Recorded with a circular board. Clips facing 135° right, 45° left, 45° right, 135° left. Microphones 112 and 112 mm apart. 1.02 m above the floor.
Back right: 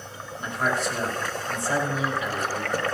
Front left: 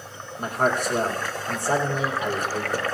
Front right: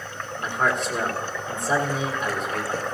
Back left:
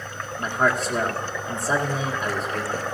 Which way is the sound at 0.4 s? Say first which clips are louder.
Front left 3 dB, back left 2 dB; 80° left.